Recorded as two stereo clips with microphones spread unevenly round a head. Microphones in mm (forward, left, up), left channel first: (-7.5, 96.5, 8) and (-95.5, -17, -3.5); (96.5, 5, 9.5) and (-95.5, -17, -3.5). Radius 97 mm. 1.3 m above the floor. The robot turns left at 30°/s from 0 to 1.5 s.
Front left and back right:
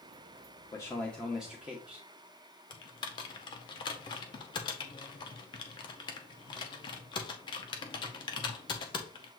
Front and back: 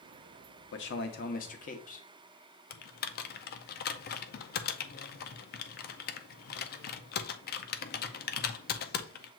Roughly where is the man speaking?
Ahead.